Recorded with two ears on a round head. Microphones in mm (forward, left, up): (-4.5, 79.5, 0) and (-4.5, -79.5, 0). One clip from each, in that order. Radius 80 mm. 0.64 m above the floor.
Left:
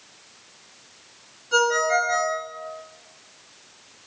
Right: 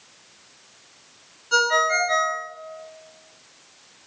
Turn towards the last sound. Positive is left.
turn(degrees=-50)  # may be behind; listen again after turning